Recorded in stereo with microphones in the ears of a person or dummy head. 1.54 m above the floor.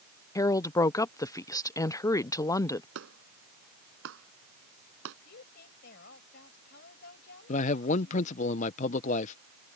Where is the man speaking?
35° left (ahead or behind).